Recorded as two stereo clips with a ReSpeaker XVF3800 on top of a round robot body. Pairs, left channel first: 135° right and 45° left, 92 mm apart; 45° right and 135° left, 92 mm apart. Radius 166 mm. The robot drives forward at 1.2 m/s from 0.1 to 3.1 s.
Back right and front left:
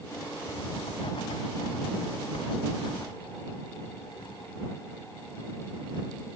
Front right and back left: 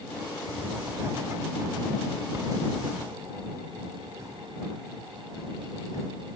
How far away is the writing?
About 1.4 m.